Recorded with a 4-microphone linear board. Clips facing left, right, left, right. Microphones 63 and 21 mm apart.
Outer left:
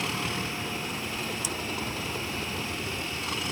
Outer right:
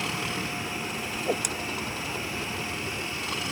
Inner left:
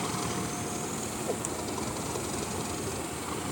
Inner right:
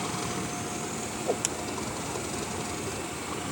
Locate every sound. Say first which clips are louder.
1.1 s a whoosh: outer right 5 dB, inner right 6 dB; 65° right (ahead or behind)